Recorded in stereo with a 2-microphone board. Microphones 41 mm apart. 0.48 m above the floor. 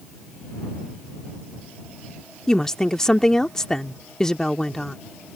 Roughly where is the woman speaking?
Centre.